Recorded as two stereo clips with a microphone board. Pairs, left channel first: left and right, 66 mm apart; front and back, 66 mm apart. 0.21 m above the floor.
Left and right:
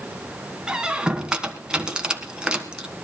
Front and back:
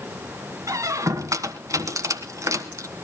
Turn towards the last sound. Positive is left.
turn(degrees=-165)